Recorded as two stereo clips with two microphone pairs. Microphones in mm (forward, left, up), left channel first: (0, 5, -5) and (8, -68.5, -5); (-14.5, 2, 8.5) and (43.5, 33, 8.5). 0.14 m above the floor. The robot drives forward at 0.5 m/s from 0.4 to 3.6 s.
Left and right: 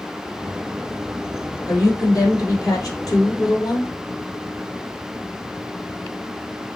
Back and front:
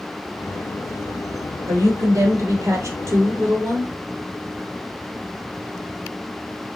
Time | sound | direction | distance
1.7 | a woman speaking | 55° left | 4 m